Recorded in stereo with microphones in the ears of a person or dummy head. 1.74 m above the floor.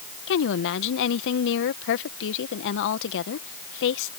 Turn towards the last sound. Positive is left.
turn(degrees=65)  # may be behind; listen again after turning